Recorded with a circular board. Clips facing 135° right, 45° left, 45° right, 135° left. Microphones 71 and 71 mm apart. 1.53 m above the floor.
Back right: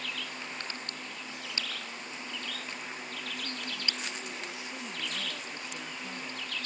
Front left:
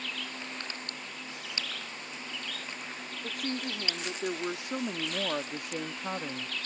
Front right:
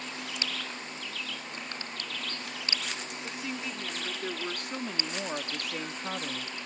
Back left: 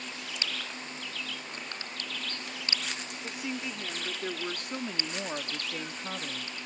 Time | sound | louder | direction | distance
3.2 | a woman speaking | front left 8 dB, back left 2 dB | 55° left | ?